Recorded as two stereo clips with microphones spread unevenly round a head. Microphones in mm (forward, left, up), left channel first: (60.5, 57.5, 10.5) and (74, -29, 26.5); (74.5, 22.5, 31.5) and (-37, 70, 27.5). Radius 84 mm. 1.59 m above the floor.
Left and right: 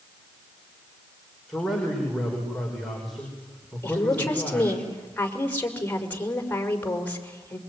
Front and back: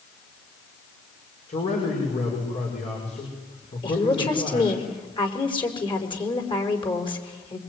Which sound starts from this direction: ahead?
A man speaking, at 1.5 s.